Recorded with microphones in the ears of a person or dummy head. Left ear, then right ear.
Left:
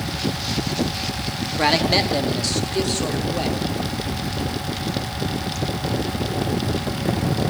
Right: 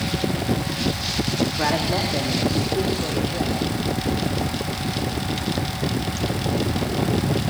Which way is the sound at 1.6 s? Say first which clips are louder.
Left 7 dB; 75° left (ahead or behind).